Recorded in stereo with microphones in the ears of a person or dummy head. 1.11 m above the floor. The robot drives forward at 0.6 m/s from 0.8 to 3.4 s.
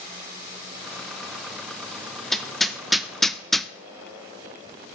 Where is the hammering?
Centre (ahead or behind), 1.0 m.